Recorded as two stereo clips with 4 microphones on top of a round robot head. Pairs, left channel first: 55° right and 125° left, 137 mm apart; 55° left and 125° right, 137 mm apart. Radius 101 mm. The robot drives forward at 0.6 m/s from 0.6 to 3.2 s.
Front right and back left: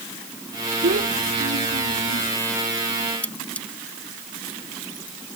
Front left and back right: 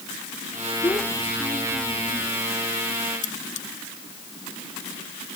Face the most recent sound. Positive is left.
turn(degrees=25)